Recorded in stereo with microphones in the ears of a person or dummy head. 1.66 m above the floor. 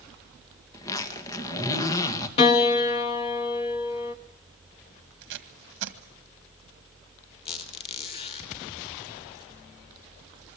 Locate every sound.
0.7 s a zipper: 20° left (ahead or behind), 2 m
2.4 s a piano: 30° left (ahead or behind), 1.1 m
5.2 s tape being pulled: 65° right (ahead or behind), 1.7 m
7.5 s a squeak: 30° left (ahead or behind), 1.8 m